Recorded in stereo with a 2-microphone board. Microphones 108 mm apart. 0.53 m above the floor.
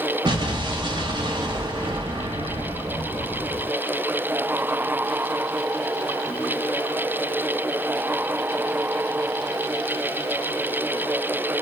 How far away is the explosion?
About 1.1 m.